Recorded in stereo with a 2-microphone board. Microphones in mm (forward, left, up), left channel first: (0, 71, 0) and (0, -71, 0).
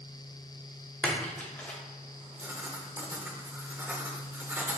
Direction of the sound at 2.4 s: 15° right (ahead or behind).